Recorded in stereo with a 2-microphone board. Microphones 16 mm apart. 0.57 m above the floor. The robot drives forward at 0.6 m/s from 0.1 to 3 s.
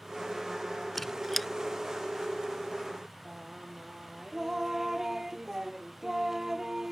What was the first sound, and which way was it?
A squeak, 15° left (ahead or behind).